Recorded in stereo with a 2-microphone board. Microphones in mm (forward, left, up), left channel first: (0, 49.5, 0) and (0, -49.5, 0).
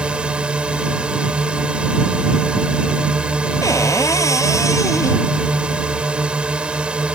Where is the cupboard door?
30° left (ahead or behind).